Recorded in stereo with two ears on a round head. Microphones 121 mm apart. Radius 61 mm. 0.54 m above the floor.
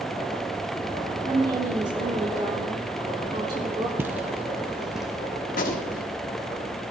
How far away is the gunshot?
About 1.4 m.